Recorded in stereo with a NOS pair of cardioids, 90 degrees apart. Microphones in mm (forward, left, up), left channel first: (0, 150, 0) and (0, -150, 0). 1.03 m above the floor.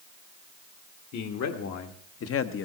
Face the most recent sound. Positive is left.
turn(degrees=45)